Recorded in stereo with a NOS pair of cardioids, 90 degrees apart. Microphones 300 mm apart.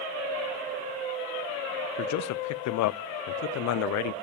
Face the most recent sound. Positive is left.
turn(degrees=70)